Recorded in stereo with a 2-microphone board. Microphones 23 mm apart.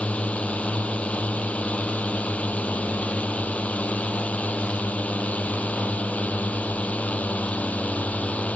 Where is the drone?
65° left (ahead or behind); by 8.6 s 80° left.